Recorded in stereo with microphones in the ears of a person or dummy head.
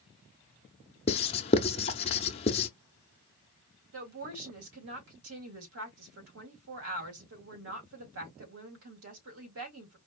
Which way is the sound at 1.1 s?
30° left (ahead or behind).